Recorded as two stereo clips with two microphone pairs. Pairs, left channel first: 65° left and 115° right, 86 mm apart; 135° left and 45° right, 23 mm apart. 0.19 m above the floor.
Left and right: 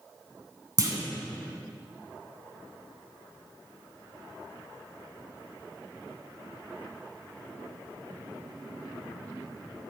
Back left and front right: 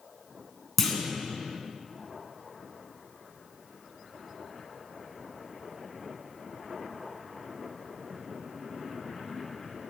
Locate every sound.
0.8 s a clunk: 145° right, 1.1 m